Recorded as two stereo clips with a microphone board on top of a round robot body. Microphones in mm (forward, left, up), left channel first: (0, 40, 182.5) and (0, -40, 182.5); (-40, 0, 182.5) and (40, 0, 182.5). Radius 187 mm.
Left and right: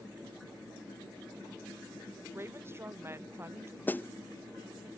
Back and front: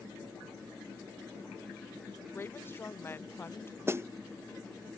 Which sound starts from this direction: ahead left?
A snare drum, at 3.9 s.